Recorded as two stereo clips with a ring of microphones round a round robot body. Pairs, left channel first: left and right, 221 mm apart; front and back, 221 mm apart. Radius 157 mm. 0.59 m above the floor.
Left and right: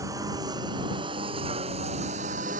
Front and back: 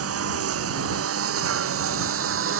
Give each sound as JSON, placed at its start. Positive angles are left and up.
{"t": 0.0, "sound": "a lawn mower", "azimuth_deg": -170}